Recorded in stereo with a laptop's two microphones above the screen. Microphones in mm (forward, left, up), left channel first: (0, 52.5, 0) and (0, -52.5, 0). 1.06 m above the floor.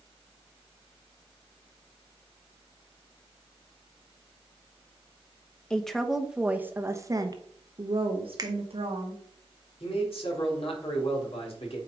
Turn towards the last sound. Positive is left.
turn(degrees=65)  # may be behind; listen again after turning